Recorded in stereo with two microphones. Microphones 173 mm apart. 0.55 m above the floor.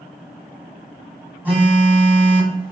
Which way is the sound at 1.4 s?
10° right (ahead or behind).